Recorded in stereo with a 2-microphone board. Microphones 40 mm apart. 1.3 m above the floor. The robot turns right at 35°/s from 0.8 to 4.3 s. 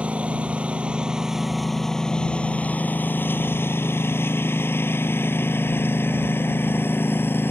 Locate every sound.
0.0 s a lawn mower: 30° right (ahead or behind); by 7.5 s 65° left (ahead or behind)